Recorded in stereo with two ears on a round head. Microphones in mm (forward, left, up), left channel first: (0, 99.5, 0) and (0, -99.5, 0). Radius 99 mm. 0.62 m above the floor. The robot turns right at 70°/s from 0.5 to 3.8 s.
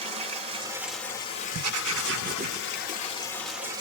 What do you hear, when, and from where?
0.0 s running water: 30° right, 1.2 m; by 3.8 s 160° right, 1.2 m
1.5 s writing: 95° right, 0.9 m; by 2.6 s 20° right, 0.9 m